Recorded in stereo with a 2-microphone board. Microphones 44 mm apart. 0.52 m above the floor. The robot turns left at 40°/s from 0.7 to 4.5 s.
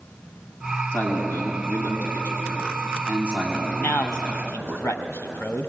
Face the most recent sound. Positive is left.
turn(degrees=75)  # may be behind; listen again after turning